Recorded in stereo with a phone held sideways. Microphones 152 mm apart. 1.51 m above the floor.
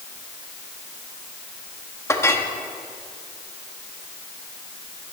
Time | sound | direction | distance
2.1 | a clink | 20° left (ahead or behind) | 1.3 m